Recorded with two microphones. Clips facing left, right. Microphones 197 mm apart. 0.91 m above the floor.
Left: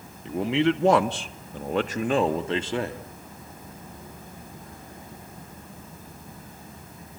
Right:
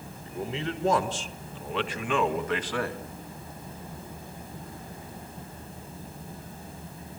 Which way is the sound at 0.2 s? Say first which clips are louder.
Left 10 dB; 75° left (ahead or behind).